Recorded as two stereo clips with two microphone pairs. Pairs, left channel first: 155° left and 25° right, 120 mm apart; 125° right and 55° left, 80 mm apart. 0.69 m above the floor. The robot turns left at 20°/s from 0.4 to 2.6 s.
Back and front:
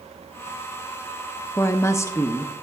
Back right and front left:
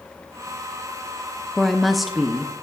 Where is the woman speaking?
150° left, 0.5 m; by 2.5 s 130° left, 0.5 m.